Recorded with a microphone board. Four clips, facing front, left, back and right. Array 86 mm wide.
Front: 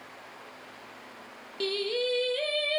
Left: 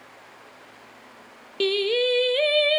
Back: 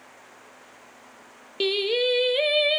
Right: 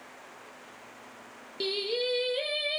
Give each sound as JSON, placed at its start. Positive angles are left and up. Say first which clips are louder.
{"t": 1.6, "sound": "singing", "louder": "left 9 dB, back 6 dB", "azimuth_deg": 125, "distance_m": 0.5}